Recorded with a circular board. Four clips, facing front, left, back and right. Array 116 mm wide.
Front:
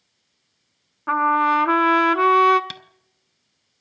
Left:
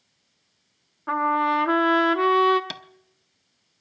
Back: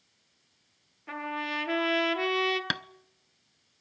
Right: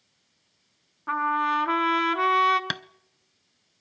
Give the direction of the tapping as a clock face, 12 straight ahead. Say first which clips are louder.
Right 6 dB, back 7 dB; 5 o'clock.